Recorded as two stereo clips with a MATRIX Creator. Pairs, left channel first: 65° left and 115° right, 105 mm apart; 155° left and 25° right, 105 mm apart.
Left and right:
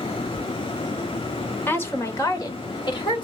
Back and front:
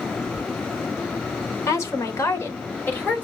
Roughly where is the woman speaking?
Behind left.